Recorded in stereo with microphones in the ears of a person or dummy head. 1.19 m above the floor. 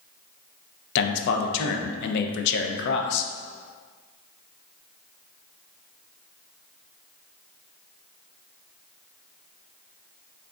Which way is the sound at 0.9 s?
60° left (ahead or behind).